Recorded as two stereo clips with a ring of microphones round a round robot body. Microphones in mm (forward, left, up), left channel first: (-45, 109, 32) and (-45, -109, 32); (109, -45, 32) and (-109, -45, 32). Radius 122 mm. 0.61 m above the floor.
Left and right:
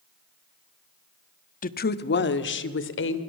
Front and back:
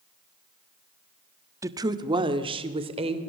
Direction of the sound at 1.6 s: 110° left.